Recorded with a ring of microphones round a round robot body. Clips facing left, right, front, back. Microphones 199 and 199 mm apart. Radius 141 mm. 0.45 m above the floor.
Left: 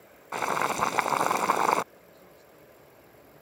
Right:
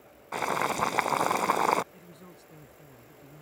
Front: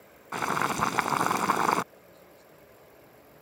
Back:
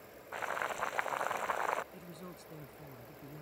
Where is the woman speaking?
135° right.